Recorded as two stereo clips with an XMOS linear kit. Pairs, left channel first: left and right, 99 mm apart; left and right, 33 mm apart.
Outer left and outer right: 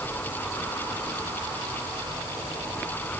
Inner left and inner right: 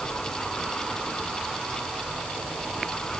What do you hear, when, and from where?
Only background noise.